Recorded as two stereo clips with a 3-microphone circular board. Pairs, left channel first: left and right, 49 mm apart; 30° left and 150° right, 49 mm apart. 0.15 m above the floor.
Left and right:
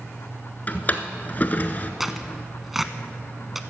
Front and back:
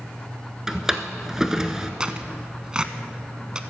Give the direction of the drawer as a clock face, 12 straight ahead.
8 o'clock.